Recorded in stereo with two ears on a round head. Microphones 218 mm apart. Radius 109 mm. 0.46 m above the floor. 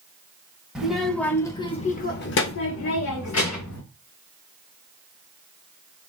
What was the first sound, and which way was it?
A child speaking, 5° right (ahead or behind).